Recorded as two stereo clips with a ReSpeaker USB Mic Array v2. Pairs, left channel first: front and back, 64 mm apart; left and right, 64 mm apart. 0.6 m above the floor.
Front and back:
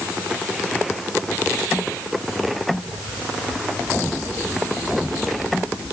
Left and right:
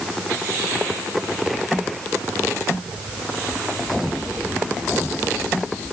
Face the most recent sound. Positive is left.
No sound to turn to.